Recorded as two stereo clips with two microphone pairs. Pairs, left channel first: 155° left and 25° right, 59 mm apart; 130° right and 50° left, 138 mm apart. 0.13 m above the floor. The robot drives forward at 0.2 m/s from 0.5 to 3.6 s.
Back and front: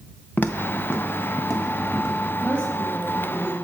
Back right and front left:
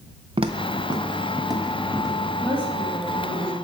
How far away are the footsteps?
About 0.7 m.